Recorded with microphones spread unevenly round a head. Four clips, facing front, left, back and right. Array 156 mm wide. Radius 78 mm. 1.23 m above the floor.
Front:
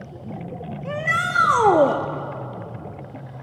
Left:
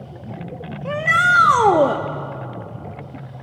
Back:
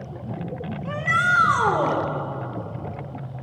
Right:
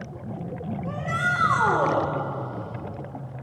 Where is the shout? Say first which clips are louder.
Left 10 dB, back 2 dB; 65° left, 1.2 m; by 2.0 s 35° left, 1.2 m.